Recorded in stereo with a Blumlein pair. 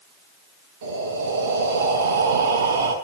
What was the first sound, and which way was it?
Breathing, 55° right.